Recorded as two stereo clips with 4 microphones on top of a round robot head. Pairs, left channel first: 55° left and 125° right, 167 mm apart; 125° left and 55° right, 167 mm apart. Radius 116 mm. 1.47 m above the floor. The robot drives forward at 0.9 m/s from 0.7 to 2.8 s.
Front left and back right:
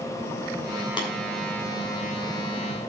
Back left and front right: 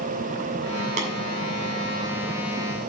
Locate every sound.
1.0 s tapping: 5° right, 2.5 m